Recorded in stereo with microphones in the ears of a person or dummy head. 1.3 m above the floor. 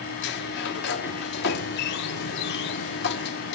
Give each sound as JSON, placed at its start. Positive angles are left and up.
{"t": 0.2, "sound": "a sliding door", "side_deg": 65, "distance_m": 1.0}